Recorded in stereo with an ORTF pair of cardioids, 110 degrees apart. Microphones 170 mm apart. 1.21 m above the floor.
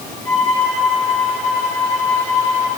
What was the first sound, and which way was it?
A violin, 20° left.